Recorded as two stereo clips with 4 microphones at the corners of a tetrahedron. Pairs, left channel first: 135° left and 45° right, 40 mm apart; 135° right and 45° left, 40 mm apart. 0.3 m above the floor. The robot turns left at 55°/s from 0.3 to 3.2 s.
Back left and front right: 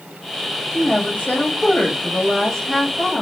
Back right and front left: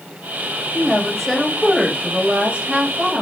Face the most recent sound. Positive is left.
turn(degrees=40)